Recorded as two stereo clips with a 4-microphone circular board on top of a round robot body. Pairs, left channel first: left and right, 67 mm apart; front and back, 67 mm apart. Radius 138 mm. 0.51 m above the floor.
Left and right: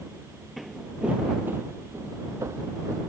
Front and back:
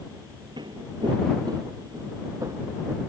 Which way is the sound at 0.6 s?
Straight behind.